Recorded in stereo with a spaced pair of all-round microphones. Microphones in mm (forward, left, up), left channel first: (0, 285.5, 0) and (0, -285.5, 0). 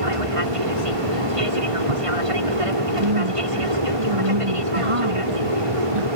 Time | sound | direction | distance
0.0 | an aircraft | 60° right (ahead or behind) | ?
3.0 | a woman speaking | 55° right (ahead or behind) | ?